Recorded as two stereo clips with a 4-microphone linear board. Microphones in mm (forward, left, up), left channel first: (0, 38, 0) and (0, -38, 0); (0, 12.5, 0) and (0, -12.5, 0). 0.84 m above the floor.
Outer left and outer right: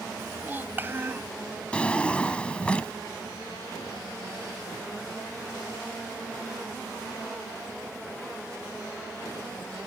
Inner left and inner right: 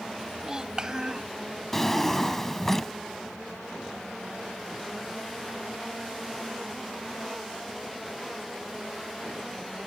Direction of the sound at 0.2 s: 25° right (ahead or behind).